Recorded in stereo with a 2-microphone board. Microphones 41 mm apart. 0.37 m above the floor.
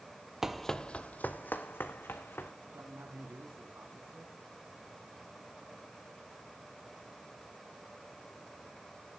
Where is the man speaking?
60° right (ahead or behind), 3 m.